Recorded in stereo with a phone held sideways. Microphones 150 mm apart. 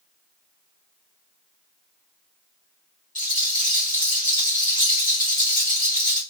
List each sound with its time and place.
3.1 s a rattle: 65° left (ahead or behind), 1.4 m